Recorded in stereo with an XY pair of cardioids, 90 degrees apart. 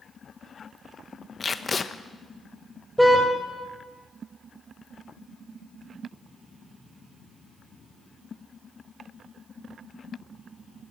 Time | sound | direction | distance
1.4 | tape being pulled | 40° left | 1.1 m
3.0 | a car horn | straight ahead | 3.5 m